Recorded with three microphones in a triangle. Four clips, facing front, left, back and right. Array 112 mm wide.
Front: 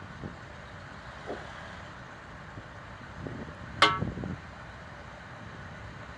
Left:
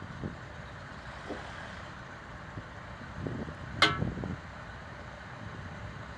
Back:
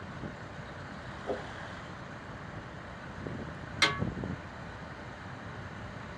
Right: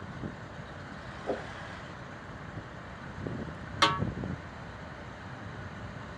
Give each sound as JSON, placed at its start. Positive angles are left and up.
{"t": 1.2, "sound": "a whoosh", "azimuth_deg": -105, "distance_m": 0.8}
{"t": 3.8, "sound": "a snare drum", "azimuth_deg": 5, "distance_m": 1.5}